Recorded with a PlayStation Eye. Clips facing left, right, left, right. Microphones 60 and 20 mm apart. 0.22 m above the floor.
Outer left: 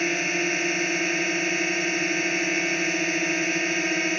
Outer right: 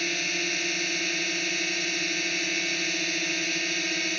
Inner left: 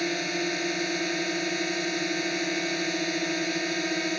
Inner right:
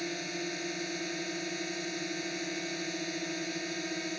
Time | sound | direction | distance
0.0 | a drone | 30° left (ahead or behind) | ?